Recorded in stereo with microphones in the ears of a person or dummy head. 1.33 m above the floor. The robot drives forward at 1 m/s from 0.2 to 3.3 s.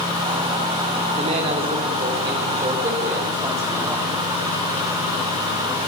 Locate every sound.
1.2 s a man speaking: 35° right (ahead or behind), 3 m; by 4.2 s 20° right (ahead or behind), 4.5 m